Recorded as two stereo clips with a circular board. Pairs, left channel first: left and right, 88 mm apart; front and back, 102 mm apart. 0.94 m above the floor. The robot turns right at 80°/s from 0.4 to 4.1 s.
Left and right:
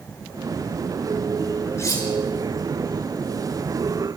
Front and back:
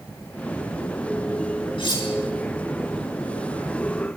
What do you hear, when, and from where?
1.8 s cutlery clinking: 30° left, 7.5 m; by 2.1 s 55° left, 7.5 m